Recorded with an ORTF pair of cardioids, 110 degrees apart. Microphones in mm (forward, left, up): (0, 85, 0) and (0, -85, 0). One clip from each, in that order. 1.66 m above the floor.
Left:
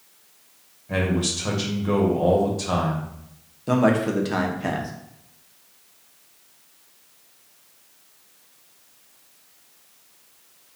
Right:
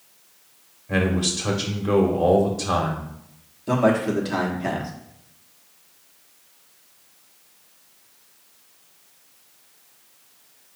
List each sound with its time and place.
0.9 s a man speaking: 10° right, 1.2 m
3.7 s a man speaking: 10° left, 1.1 m